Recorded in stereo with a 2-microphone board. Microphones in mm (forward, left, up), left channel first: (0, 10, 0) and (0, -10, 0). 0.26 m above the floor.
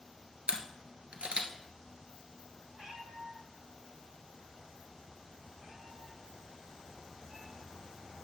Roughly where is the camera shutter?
Right.